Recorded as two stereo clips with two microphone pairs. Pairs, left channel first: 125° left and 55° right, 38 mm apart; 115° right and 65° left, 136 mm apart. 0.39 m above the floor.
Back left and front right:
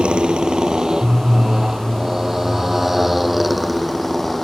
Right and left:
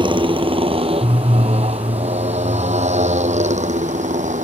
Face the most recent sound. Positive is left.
turn(degrees=35)